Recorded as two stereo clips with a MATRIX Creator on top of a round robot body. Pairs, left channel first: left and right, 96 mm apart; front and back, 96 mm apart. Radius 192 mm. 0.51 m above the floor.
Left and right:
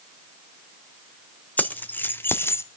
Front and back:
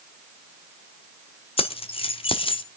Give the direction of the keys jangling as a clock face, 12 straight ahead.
11 o'clock.